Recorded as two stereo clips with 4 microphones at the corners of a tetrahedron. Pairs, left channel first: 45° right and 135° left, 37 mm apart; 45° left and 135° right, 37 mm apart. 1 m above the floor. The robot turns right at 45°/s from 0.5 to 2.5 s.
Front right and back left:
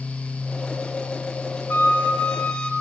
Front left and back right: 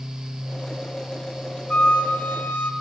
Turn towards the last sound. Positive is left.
turn(degrees=25)